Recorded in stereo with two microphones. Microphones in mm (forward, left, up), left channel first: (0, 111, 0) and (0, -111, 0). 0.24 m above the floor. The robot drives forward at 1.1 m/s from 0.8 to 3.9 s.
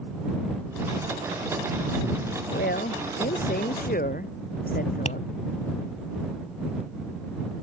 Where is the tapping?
35° left (ahead or behind).